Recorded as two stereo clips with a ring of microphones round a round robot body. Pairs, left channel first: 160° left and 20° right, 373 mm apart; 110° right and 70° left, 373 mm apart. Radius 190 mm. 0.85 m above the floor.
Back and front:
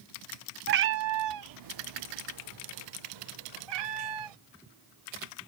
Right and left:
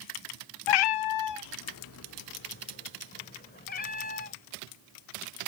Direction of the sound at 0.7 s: 90° right.